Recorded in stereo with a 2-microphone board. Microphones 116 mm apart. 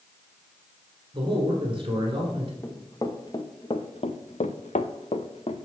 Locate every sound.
1.1 s a man speaking: 45° right (ahead or behind), 1.6 m
2.6 s running footsteps: 25° left (ahead or behind), 1.4 m; by 5.7 s 50° left (ahead or behind), 1.0 m